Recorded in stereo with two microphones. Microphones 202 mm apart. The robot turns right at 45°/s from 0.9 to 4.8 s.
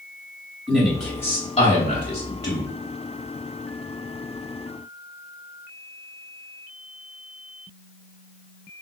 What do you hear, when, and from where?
0.7 s a man speaking: centre (ahead or behind), 2.5 m; by 2.7 s 70° left (ahead or behind), 2.5 m